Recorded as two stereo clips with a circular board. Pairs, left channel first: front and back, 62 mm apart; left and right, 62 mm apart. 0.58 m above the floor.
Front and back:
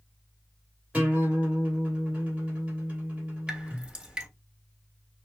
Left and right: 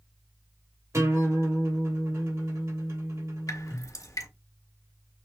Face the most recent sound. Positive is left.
turn(degrees=105)